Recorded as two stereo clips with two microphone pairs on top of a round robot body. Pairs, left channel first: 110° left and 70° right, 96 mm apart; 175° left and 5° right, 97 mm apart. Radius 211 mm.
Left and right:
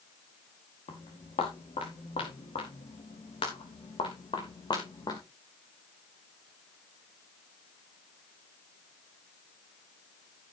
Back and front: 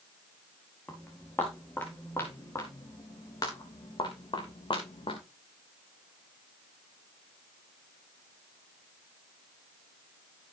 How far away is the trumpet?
I don't hear a trumpet.